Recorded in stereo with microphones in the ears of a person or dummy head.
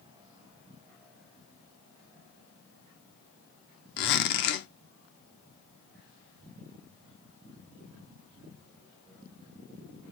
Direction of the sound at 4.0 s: 50° left (ahead or behind).